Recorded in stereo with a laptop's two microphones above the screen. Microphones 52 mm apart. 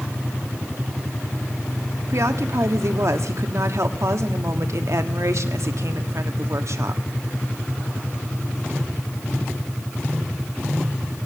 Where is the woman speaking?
70° right (ahead or behind), 1.3 m.